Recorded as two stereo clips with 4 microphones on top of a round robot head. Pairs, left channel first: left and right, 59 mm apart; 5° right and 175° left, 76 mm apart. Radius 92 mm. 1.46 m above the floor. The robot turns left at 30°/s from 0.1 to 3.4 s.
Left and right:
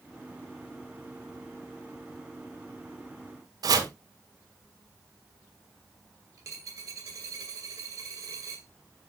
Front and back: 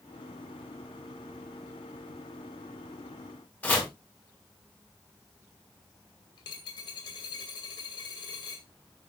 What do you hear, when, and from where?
3.6 s chopping: 80° right, 3 m
6.4 s a dropped coin: 45° right, 2 m